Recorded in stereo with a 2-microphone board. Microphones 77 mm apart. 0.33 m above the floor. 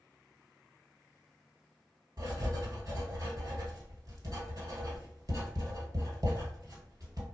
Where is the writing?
55° right (ahead or behind), 1.1 m.